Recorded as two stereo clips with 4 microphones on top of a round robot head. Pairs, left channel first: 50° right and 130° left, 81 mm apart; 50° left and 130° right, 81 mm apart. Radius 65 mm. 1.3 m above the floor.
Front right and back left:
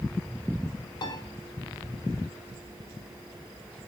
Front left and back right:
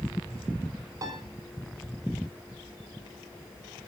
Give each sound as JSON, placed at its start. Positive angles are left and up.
{"t": 1.0, "sound": "a piano", "azimuth_deg": -80, "distance_m": 5.5}